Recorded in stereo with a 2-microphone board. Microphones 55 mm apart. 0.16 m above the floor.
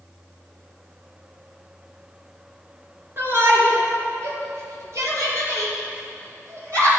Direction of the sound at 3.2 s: 45° right (ahead or behind).